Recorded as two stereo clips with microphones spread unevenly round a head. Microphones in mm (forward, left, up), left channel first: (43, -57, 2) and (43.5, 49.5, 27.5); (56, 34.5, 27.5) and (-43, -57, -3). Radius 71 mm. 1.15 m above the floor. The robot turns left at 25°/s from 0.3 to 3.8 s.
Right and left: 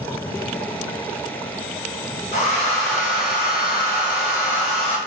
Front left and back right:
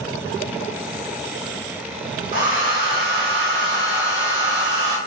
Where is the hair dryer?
110° right, 0.7 m; by 5.0 s 145° right, 0.7 m.